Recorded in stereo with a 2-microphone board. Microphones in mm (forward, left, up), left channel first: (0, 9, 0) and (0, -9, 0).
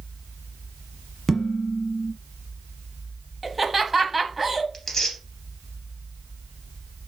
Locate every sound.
1.3 s dishes clattering: 20° left (ahead or behind), 1.4 m
3.4 s laughter: 10° right (ahead or behind), 1.0 m
4.7 s tearing paper: 15° left (ahead or behind), 2.5 m